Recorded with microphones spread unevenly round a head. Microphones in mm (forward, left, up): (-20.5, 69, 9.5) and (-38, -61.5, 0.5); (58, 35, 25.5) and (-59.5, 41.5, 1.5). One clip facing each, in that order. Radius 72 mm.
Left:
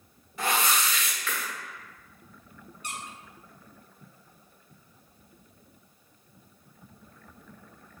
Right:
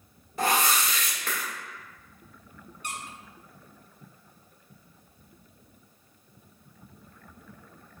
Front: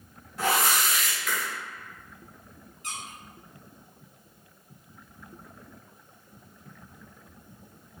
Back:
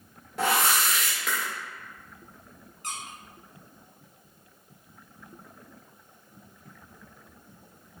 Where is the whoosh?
150° right, 1.3 m.